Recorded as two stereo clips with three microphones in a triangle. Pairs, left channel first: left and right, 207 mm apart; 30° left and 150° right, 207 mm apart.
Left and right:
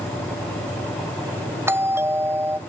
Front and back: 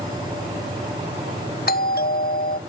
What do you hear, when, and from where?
1.7 s a doorbell: 10° right